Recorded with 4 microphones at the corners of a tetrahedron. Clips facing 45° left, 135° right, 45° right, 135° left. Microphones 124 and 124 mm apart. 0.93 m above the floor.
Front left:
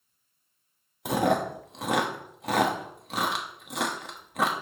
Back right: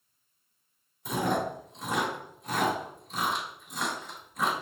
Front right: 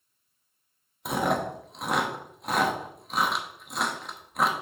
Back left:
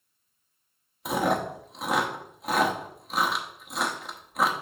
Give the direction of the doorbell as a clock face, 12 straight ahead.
No doorbell in this recording.